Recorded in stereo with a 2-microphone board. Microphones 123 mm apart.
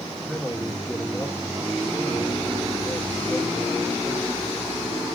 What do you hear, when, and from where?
0.3 s a man speaking: centre (ahead or behind), 1.5 m